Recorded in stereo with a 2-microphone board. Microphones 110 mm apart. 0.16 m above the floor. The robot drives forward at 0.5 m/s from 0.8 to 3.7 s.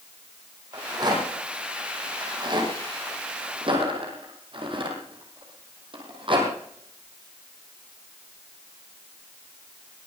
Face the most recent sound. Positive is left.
turn(degrees=-50)  # may be behind; listen again after turning